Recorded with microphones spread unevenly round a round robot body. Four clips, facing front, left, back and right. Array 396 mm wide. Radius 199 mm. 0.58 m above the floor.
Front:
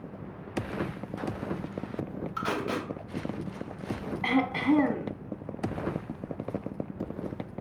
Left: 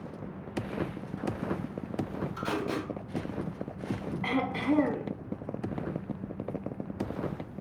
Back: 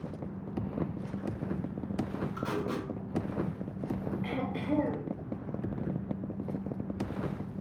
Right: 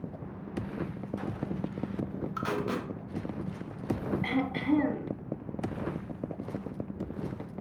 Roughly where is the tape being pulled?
Ahead right.